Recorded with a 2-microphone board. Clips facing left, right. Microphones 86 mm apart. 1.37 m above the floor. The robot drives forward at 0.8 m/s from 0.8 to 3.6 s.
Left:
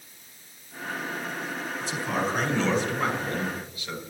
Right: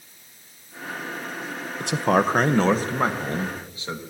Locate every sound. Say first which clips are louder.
1.8 s a man speaking: right 9 dB; 70° right (ahead or behind), 1.1 m; by 4.0 s 30° right (ahead or behind), 2 m